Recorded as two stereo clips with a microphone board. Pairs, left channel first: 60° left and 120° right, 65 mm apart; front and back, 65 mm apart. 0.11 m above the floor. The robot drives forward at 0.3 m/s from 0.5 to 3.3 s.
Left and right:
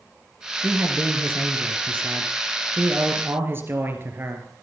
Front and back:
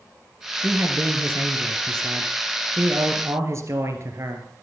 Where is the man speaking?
150° right, 2 m; by 4.5 s 160° right, 2.5 m.